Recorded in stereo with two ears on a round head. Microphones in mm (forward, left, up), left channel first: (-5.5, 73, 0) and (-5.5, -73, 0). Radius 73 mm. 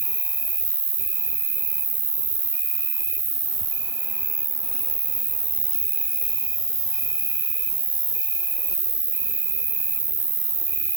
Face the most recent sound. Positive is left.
turn(degrees=-20)  # may be behind; listen again after turning